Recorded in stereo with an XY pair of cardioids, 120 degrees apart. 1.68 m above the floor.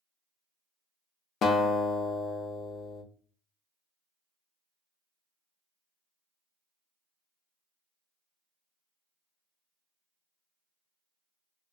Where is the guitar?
60° left, 0.5 m.